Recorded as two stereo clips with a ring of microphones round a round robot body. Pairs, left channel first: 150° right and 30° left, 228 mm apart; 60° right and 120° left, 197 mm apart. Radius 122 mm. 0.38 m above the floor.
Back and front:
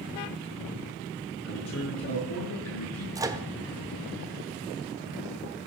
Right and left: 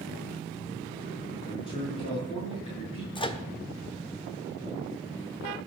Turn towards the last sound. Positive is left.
turn(degrees=-30)